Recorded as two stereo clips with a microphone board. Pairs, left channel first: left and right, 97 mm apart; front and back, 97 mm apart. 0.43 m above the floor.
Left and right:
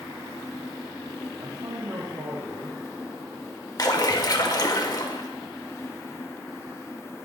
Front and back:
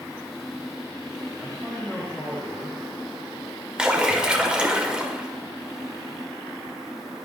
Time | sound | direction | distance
1.4 | a man speaking | 80° right | 1.9 m
3.8 | a splash | 105° left | 1.3 m